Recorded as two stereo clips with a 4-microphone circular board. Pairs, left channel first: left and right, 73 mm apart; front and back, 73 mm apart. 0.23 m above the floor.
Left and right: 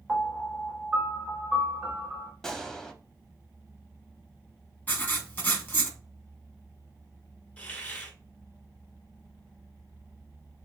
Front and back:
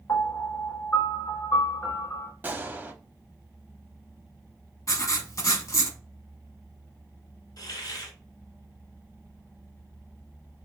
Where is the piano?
5° right, 1.1 m.